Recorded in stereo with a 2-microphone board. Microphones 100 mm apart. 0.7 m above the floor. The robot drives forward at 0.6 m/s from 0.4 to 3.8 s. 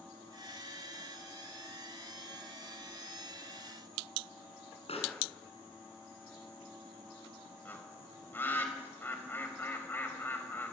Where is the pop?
75° left (ahead or behind), 7 m.